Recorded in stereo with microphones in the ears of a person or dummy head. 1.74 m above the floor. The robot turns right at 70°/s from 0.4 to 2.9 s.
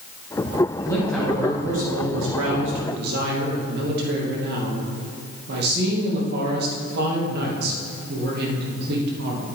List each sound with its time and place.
0.8 s a man speaking: 145° left, 2.5 m; by 9.4 s 70° right, 2.5 m